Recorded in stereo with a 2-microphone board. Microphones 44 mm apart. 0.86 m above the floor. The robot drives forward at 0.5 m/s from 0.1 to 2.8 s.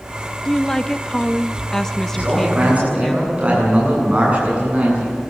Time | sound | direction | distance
0.5 | a woman speaking | 10° left (ahead or behind) | 0.6 m
2.1 | a man speaking | 30° right (ahead or behind) | 9 m